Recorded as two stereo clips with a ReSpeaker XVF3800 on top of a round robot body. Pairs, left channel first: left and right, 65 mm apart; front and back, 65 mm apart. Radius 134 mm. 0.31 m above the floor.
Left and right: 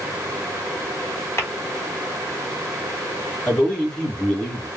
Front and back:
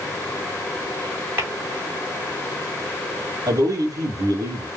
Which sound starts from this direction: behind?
A man speaking, at 3.5 s.